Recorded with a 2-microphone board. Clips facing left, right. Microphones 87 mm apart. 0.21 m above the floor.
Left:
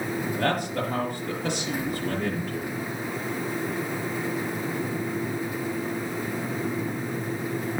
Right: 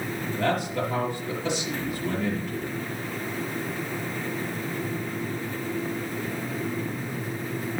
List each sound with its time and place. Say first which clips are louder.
0.3 s a man speaking: right 2 dB; 50° left (ahead or behind), 5 m